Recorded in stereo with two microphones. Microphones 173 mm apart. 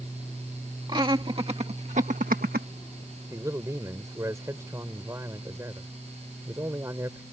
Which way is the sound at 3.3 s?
15° right (ahead or behind).